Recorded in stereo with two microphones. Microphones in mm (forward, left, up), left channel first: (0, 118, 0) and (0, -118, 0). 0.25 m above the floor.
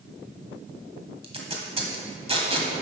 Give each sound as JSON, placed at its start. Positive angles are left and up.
{"t": 1.2, "sound": "tape being pulled", "side_deg": -25, "distance_m": 1.5}